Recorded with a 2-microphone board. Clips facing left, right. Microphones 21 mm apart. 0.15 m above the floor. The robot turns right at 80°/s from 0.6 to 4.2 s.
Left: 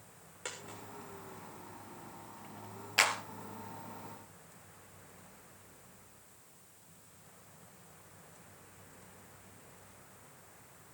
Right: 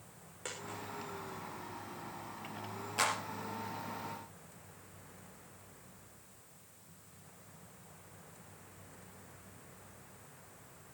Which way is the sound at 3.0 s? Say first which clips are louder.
Left 4 dB; 65° left (ahead or behind).